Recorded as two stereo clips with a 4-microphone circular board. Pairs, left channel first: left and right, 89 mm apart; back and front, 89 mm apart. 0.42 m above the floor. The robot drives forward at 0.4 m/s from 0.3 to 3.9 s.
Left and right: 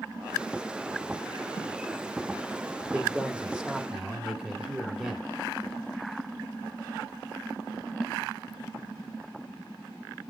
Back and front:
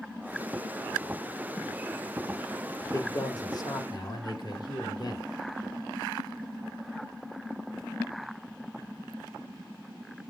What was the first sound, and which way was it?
A man speaking, 160° right.